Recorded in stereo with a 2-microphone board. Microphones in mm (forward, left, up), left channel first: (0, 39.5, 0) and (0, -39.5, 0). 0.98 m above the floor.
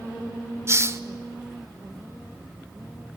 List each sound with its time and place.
0.7 s a hiss: 35° right (ahead or behind), 1.0 m